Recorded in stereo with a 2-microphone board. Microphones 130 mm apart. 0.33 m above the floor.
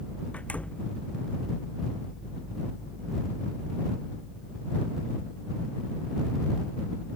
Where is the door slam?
10° left (ahead or behind).